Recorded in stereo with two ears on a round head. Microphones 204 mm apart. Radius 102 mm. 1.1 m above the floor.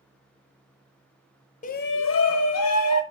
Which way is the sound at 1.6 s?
35° left (ahead or behind).